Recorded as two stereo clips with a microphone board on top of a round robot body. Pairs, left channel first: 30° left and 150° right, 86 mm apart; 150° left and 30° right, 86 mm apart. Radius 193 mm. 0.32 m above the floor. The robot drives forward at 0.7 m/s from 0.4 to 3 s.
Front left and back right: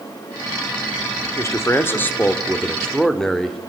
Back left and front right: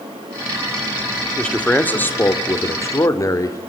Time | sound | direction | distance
1.4 | a man speaking | 75° left | 2 m